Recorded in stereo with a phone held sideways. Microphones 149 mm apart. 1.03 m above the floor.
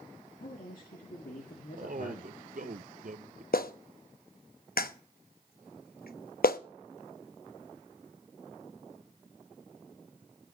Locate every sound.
0.4 s a man speaking: 70° left (ahead or behind), 2 m
1.7 s a man speaking: 65° right (ahead or behind), 0.6 m
3.5 s a clap: 80° left, 0.8 m